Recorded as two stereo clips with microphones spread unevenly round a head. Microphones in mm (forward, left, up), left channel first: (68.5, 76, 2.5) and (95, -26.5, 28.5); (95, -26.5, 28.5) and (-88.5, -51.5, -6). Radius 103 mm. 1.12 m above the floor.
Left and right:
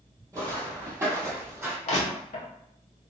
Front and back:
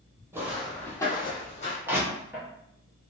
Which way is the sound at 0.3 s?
90° right.